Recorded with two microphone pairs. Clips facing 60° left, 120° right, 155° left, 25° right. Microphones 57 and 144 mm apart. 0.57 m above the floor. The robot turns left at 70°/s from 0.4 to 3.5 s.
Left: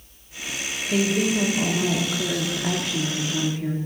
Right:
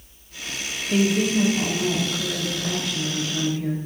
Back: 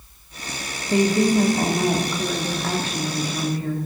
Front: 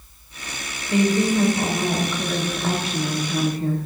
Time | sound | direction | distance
0.9 | a woman speaking | straight behind | 1.3 m